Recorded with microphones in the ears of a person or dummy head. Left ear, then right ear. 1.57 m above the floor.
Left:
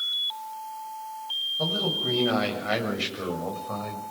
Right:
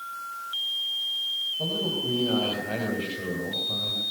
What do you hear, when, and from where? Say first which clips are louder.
1.6 s a man speaking: left 2 dB; 60° left (ahead or behind), 7 m; by 4.0 s 55° left (ahead or behind), 6 m